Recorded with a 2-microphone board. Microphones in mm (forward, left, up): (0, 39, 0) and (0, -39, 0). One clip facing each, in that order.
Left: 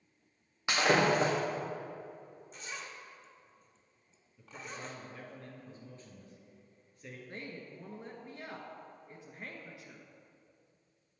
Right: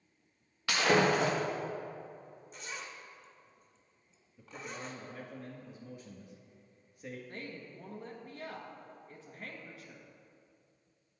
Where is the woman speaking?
20° left (ahead or behind), 1.1 m.